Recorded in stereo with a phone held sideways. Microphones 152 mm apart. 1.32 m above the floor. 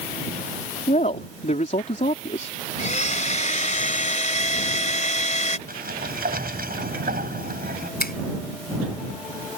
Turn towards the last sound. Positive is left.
turn(degrees=85)